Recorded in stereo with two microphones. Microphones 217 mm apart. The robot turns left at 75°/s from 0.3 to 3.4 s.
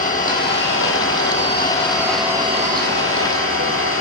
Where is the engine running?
140° left, 3.5 m; by 4.0 s 90° right, 3.5 m.